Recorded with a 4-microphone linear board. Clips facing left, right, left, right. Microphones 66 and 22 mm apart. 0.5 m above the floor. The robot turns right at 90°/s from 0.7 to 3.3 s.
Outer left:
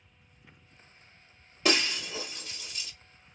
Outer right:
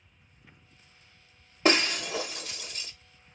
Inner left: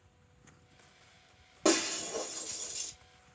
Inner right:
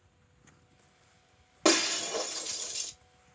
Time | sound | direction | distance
1.6 | breaking glass | 35° right (ahead or behind) | 0.6 m